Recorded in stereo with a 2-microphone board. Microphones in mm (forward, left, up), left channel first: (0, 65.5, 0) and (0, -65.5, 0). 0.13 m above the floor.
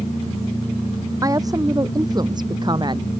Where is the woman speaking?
25° right (ahead or behind); by 3.1 s 35° right (ahead or behind).